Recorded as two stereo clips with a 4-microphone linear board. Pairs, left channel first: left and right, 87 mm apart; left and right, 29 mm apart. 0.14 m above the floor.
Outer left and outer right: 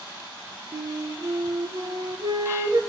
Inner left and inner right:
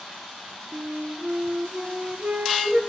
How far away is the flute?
About 0.8 m.